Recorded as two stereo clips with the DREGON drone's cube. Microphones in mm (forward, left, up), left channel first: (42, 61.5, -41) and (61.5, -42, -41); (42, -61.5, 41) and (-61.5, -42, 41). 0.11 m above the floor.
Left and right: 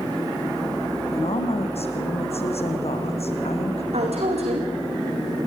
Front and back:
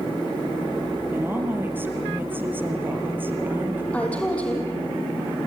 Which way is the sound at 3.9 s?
90° right.